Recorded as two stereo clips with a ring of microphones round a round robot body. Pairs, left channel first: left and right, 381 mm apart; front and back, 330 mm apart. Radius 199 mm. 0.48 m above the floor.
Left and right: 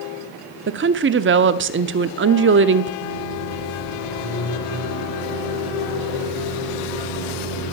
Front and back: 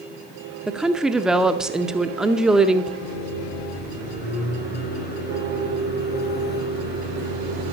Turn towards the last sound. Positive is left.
turn(degrees=60)